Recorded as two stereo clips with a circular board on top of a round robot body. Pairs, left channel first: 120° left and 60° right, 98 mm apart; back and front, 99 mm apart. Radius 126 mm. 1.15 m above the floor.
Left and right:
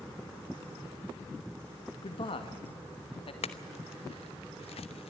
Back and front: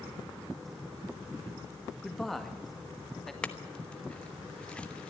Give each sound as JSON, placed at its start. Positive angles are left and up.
{"t": 2.0, "sound": "a man speaking", "azimuth_deg": 90, "distance_m": 1.9}
{"t": 3.4, "sound": "a clink", "azimuth_deg": 100, "distance_m": 1.0}